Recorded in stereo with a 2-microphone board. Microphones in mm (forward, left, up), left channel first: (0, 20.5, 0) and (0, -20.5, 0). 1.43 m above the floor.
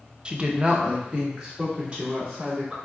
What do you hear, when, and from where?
0.2 s a woman speaking: 20° right (ahead or behind), 0.5 m; by 2.8 s 25° right (ahead or behind), 3.5 m